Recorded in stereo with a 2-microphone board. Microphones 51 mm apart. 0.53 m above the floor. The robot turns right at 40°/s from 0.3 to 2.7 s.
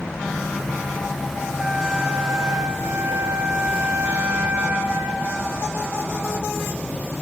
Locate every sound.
1.6 s a flute: 165° right, 3.5 m; by 5.4 s 115° right, 3.5 m